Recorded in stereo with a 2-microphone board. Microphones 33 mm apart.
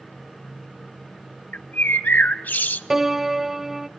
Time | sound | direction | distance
1.5 | a bird | 60° left (ahead or behind) | 0.5 m
2.9 | a piano | 10° right (ahead or behind) | 0.5 m